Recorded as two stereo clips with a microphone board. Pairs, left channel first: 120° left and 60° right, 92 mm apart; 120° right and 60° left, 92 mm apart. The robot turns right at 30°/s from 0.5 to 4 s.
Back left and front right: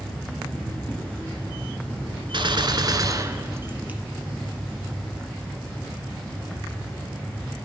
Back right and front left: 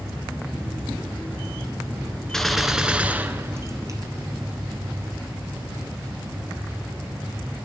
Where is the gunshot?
35° right, 1.0 m; by 4.0 s 15° left, 1.0 m.